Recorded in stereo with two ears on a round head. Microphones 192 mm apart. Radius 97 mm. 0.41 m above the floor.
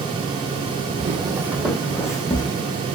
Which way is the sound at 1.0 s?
35° right (ahead or behind).